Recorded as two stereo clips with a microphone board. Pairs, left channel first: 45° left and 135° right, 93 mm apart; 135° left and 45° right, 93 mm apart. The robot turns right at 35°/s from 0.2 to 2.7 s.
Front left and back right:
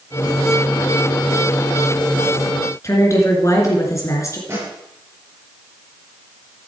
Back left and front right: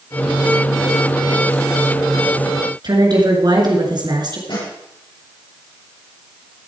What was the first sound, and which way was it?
A woman speaking, 10° right.